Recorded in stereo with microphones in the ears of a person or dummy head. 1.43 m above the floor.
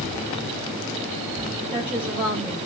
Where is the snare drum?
No snare drum in this recording.